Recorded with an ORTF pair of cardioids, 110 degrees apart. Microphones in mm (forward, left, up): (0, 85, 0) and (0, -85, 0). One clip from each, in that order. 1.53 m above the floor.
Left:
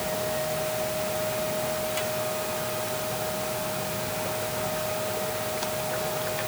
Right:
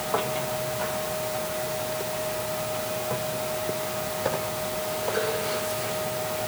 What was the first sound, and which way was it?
Only background noise.